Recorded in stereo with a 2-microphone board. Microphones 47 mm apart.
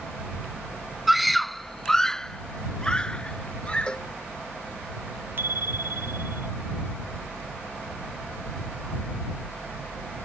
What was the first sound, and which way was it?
A scream, 5° right (ahead or behind).